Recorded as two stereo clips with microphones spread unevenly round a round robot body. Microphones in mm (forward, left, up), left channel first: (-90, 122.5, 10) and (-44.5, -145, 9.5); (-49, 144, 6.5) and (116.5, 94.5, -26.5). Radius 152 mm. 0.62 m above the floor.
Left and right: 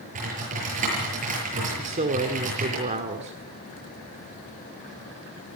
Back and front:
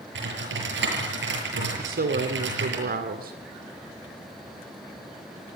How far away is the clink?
I don't hear a clink.